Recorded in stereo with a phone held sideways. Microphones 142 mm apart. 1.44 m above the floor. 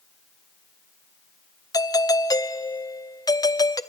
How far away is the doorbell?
About 0.7 m.